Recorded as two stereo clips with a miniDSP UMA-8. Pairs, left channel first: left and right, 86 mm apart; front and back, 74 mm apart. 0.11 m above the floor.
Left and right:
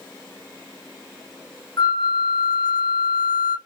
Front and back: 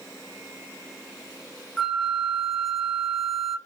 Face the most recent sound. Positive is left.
turn(degrees=95)